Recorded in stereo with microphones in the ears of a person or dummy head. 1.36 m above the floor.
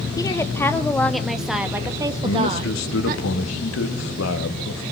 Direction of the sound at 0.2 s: 20° left (ahead or behind).